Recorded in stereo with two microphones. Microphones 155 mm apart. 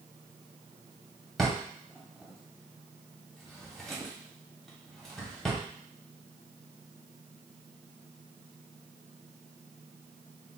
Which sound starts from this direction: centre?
A drawer, at 1.4 s.